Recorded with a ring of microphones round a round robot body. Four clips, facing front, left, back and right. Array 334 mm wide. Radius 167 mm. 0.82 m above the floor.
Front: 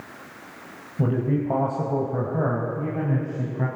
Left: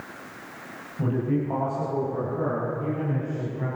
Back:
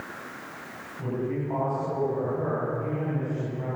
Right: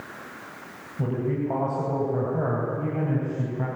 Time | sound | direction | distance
1.0 | a man speaking | 5° right | 5 m